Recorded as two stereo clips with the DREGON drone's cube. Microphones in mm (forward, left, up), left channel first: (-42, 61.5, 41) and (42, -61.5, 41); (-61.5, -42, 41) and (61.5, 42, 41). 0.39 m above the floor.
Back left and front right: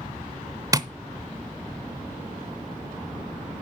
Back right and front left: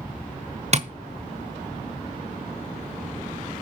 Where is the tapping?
5° left, 0.8 m.